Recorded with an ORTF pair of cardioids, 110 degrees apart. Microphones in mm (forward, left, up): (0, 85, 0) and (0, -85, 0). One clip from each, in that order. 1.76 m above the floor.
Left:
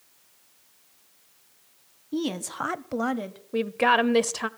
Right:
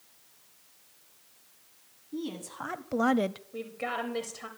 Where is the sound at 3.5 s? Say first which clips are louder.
Left 18 dB; 70° left, 0.8 m.